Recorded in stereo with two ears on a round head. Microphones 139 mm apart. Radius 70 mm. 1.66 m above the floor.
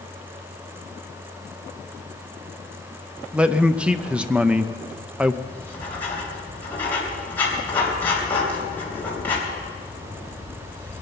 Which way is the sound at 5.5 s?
10° left (ahead or behind).